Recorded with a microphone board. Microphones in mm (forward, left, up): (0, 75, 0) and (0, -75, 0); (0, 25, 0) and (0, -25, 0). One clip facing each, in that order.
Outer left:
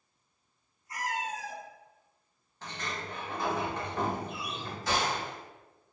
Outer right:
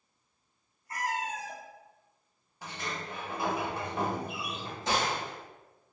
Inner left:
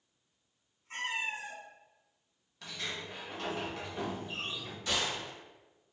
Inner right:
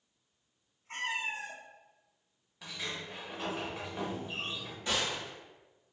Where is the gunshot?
25° right (ahead or behind), 1.4 m.